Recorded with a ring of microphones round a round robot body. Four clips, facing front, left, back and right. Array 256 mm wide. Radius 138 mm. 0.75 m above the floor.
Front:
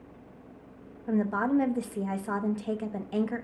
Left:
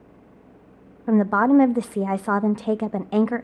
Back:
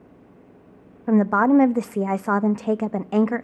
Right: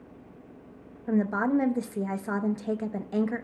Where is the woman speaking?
145° left, 0.6 m.